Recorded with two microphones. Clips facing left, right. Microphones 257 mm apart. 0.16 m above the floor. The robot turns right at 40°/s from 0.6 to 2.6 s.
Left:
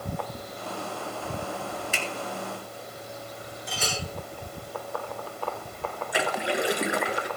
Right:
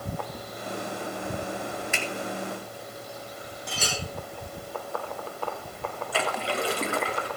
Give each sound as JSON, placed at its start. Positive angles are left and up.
{"t": 1.9, "sound": "a finger snap", "side_deg": 40, "distance_m": 2.0}
{"t": 3.7, "sound": "a clink", "side_deg": -75, "distance_m": 5.5}
{"t": 6.1, "sound": "a splash", "side_deg": 15, "distance_m": 1.4}